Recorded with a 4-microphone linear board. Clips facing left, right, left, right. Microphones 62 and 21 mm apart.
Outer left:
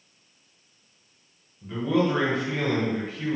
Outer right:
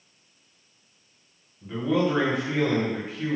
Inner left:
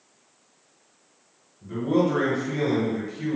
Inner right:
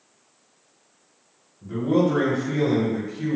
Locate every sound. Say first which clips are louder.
1.6 s a man speaking: even, inner right 2 dB; 5° right (ahead or behind), 1.2 m